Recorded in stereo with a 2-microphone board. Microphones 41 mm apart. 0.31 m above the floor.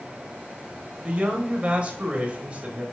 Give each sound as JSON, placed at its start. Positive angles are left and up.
{"t": 1.0, "sound": "a man speaking", "side_deg": -30, "distance_m": 1.1}